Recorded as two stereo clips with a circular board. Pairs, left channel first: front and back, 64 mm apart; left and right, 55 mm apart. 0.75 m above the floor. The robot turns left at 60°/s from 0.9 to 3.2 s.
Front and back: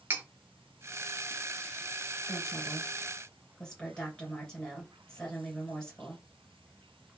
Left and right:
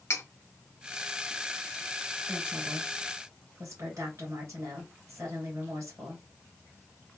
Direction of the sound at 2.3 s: 15° right.